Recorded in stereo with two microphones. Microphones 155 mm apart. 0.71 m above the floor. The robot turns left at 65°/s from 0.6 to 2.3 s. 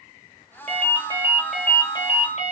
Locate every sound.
0.7 s a ringtone: 125° right, 1.3 m; by 2.5 s 130° left, 1.3 m